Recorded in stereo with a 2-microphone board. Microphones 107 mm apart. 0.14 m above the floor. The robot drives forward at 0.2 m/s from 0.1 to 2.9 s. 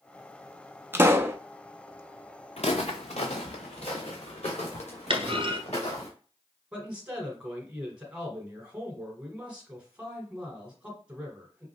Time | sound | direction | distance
0.9 | a pop | 20° right (ahead or behind) | 0.5 m
2.6 | footsteps | 70° left (ahead or behind) | 0.7 m
5.1 | a clunk | 55° right (ahead or behind) | 0.8 m
6.7 | a man speaking | 10° right (ahead or behind) | 1.7 m